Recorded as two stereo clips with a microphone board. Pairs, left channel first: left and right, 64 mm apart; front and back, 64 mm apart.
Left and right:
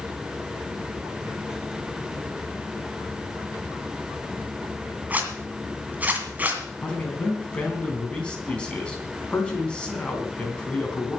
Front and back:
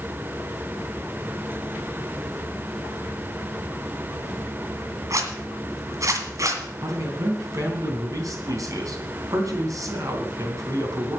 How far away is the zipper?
About 2 m.